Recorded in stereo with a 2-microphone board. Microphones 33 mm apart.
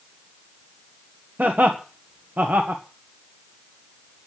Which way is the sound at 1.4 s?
55° right (ahead or behind).